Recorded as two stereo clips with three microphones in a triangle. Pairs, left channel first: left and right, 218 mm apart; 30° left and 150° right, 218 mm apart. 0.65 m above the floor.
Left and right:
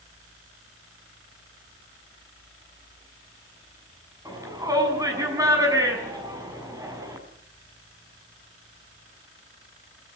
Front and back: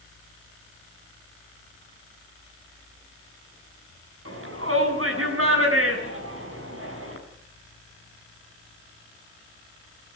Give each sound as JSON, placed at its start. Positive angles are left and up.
{"t": 4.2, "sound": "a shout", "azimuth_deg": -165, "distance_m": 7.0}